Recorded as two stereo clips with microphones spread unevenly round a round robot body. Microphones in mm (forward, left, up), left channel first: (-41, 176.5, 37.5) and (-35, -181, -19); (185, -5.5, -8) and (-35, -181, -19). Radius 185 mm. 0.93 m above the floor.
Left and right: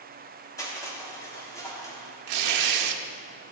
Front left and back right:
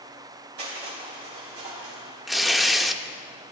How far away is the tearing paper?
About 0.7 m.